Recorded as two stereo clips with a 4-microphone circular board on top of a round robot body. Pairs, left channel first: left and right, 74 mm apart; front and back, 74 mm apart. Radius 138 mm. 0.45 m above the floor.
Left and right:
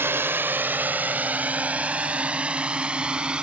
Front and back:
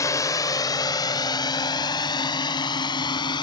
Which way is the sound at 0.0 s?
35° right.